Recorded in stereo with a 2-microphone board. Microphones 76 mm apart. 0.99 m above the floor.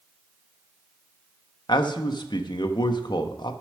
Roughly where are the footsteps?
No footsteps in this recording.